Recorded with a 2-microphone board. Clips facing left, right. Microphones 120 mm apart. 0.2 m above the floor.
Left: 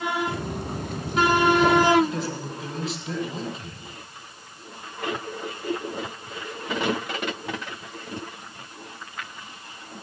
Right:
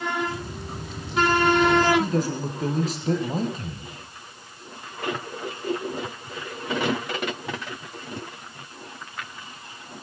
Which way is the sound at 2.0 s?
40° right (ahead or behind).